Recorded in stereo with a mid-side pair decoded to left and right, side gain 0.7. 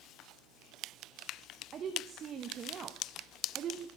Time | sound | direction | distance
1.7 | a woman speaking | 35° right | 1.0 m